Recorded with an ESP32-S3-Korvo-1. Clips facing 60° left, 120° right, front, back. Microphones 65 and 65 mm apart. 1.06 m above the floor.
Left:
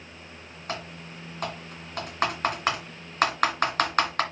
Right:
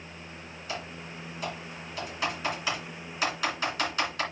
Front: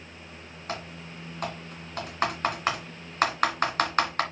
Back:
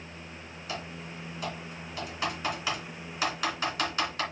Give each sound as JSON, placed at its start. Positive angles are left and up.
{"t": 0.7, "sound": "typing on a keyboard", "azimuth_deg": 30, "distance_m": 2.5}